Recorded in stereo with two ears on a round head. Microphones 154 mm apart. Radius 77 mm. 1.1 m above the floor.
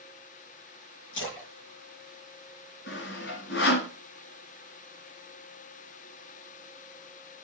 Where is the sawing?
70° left (ahead or behind), 2.5 m.